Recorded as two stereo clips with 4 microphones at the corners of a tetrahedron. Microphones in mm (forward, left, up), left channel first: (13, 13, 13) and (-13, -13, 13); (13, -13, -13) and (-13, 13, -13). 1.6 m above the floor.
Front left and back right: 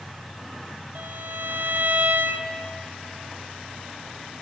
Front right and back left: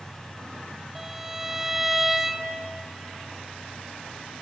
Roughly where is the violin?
Behind right.